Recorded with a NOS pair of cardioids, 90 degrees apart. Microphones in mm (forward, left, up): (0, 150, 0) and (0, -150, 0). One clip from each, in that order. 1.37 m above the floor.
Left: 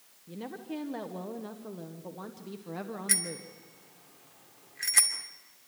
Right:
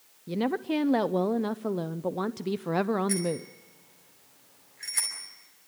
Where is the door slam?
No door slam in this recording.